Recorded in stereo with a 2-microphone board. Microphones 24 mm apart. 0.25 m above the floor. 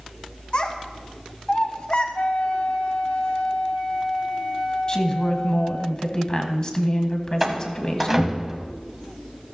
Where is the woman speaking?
30° left (ahead or behind), 1.6 m.